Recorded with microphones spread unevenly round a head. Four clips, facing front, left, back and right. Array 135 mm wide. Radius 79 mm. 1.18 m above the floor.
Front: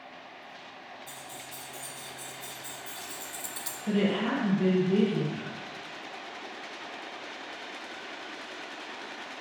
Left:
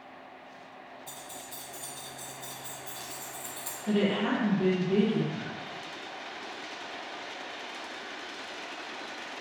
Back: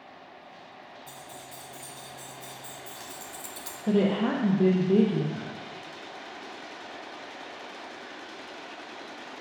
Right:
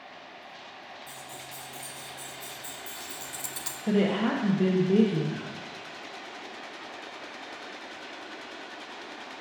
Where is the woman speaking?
145° right, 1.0 m.